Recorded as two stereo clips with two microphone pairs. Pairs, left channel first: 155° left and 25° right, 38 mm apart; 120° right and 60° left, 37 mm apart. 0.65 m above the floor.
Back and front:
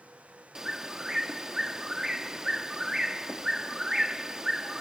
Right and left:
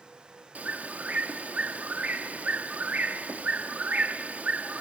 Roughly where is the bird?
Ahead left.